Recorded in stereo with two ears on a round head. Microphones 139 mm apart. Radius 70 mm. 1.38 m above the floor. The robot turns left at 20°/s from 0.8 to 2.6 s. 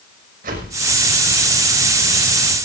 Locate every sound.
0.4 s a whoosh: 60° right (ahead or behind), 5.5 m